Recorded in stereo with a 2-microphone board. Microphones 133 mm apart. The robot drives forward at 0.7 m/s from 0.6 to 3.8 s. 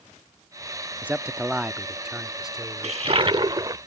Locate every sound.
1.0 s a man speaking: 10° right (ahead or behind); by 3.8 s 5° right (ahead or behind)
2.8 s a toilet flushing: 50° right (ahead or behind); by 3.8 s 30° right (ahead or behind)